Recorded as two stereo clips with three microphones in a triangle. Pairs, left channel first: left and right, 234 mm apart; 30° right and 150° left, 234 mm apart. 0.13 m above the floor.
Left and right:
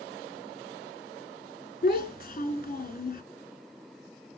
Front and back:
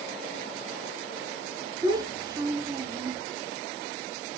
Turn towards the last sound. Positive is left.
turn(degrees=90)